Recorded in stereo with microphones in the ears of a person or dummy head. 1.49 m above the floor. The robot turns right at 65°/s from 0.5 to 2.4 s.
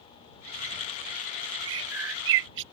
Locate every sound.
1.6 s a bird: 120° right; by 2.6 s 70° right